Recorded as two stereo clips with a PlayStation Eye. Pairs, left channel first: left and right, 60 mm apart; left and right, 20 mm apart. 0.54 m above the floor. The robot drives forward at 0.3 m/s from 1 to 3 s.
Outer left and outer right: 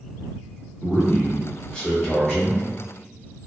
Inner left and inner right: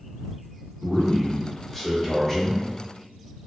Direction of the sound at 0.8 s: 20° left (ahead or behind).